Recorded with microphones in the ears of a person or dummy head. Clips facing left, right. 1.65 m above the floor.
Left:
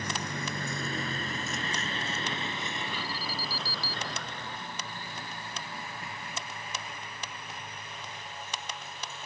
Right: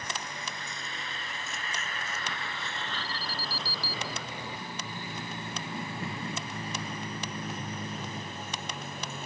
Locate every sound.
0.0 s a vehicle: 55° left (ahead or behind); by 9.2 s 40° right (ahead or behind)
2.9 s an alarm: 85° left